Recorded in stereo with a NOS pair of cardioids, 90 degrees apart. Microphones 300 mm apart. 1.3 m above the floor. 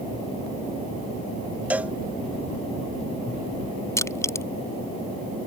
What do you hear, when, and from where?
1.7 s a cowbell: 5° right
4.0 s crushing: 10° left